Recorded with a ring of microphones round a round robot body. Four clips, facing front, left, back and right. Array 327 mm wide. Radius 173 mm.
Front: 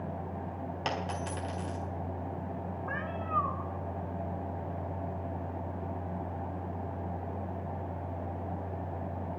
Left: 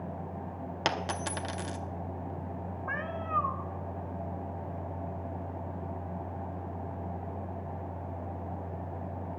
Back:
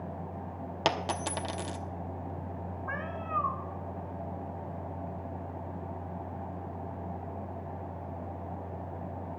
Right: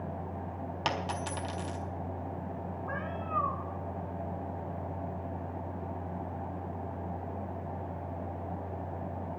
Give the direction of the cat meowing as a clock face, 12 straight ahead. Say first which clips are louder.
Left 3 dB, even; 9 o'clock.